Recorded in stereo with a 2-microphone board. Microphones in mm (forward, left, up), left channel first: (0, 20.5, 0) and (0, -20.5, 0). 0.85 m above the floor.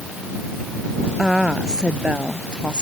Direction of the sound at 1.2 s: 15° right (ahead or behind).